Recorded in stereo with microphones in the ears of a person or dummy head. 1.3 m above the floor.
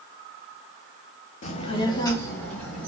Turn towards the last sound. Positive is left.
turn(degrees=5)  # may be behind; listen again after turning